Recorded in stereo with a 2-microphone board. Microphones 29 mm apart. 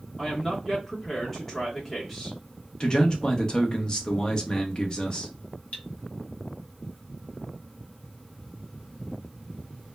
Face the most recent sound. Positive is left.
turn(degrees=50)  # may be behind; listen again after turning